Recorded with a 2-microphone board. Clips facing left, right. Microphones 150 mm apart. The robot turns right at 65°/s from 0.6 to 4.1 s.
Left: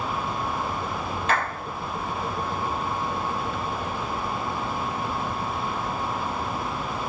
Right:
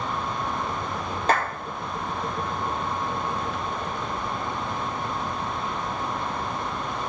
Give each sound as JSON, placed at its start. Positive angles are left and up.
{"t": 1.3, "sound": "a clap", "side_deg": -35, "distance_m": 5.0}